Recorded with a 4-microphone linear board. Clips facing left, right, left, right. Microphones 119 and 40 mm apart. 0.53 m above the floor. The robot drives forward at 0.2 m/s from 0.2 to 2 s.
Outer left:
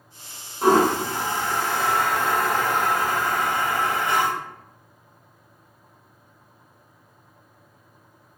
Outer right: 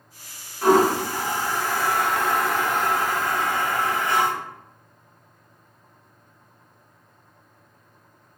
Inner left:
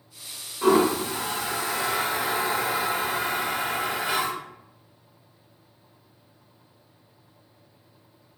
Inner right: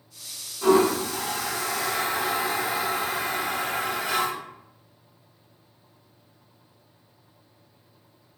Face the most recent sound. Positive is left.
turn(degrees=25)  # may be behind; listen again after turning